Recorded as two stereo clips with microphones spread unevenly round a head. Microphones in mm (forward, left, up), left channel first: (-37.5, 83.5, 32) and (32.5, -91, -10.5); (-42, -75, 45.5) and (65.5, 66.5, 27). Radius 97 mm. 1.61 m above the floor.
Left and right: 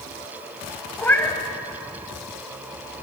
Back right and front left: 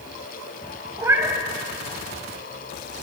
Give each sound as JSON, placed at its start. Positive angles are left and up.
{"t": 1.0, "sound": "a cat meowing", "azimuth_deg": 125, "distance_m": 1.5}